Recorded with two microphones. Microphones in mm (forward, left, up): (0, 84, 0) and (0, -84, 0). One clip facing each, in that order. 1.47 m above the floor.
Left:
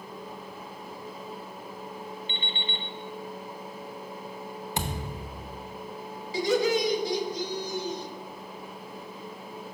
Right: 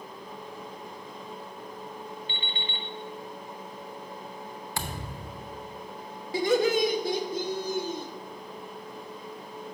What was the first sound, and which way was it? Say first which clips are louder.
An alarm clock: left 1 dB; 20° left (ahead or behind).